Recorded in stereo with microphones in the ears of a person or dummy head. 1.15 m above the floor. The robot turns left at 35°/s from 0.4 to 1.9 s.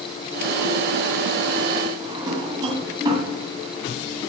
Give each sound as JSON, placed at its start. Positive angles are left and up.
{"t": 2.0, "sound": "a drawer", "side_deg": -20, "distance_m": 2.5}